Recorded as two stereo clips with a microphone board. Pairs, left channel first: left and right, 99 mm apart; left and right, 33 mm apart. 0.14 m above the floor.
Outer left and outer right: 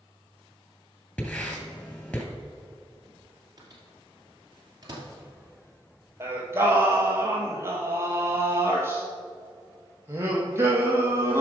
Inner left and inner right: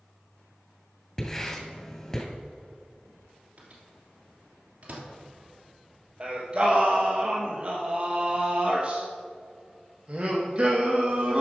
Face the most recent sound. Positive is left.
turn(degrees=-25)  # may be behind; listen again after turning